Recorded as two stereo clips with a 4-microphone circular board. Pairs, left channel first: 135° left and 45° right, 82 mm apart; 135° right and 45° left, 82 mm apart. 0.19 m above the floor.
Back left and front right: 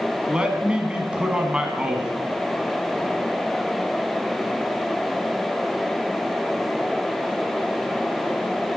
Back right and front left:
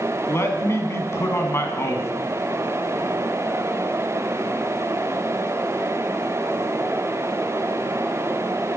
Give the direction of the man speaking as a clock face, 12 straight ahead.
4 o'clock.